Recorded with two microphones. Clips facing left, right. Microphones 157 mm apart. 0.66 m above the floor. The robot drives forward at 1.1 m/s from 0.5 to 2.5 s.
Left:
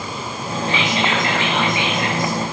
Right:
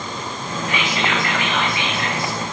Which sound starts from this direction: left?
Whispering, at 0.7 s.